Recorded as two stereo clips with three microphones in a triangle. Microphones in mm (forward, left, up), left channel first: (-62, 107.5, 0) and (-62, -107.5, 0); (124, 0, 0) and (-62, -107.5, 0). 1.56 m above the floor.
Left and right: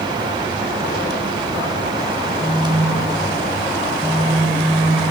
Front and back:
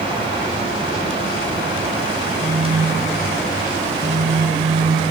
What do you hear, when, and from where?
2.4 s a phone buzzing: 160° left, 2.5 m